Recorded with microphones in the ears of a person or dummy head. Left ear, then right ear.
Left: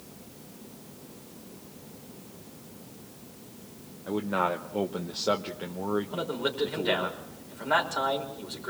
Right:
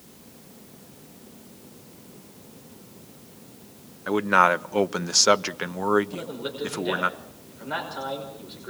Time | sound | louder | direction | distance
4.1 | a man speaking | right 9 dB | 55° right (ahead or behind) | 0.8 m
6.1 | a man speaking | left 3 dB | 30° left (ahead or behind) | 5.5 m